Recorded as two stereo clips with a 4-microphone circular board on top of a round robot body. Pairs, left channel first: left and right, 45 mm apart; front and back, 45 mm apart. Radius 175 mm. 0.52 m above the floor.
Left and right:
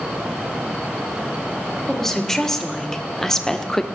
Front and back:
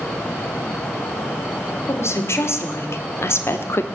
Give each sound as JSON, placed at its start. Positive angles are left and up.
{"t": 1.9, "sound": "a woman speaking", "azimuth_deg": 10, "distance_m": 2.5}